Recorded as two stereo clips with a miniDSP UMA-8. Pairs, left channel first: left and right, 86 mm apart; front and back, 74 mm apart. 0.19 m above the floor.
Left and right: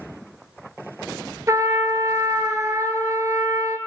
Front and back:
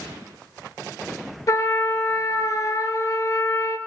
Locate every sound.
1.5 s a trumpet: 40° right, 0.6 m